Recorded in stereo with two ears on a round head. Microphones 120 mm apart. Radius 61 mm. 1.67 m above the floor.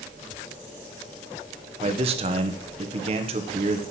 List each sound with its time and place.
1.8 s a man speaking: 45° right (ahead or behind), 1.5 m